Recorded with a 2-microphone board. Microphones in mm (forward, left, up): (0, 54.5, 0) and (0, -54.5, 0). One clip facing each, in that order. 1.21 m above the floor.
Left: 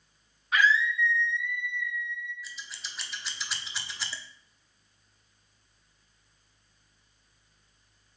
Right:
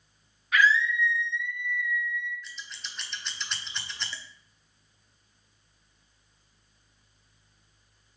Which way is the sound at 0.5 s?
30° left (ahead or behind).